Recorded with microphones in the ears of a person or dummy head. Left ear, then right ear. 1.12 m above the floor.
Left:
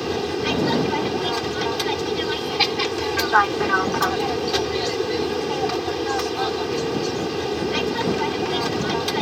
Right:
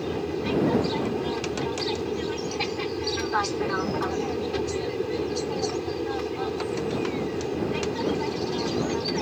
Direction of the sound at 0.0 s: 45° left (ahead or behind).